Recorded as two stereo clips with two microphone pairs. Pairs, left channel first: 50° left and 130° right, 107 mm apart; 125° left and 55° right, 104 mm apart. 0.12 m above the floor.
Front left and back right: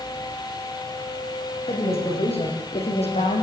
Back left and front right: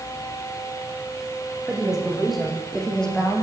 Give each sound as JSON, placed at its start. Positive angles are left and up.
{"t": 1.7, "sound": "a woman speaking", "azimuth_deg": 30, "distance_m": 8.0}